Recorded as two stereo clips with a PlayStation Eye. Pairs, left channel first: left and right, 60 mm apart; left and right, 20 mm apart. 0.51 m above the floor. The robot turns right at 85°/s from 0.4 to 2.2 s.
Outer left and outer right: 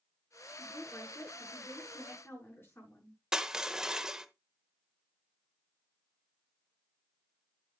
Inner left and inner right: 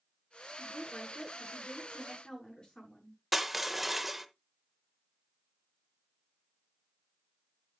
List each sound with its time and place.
0.6 s a woman speaking: 5° left, 7.5 m; by 3.2 s 140° left, 7.5 m
3.3 s crushing: 10° right (ahead or behind), 0.8 m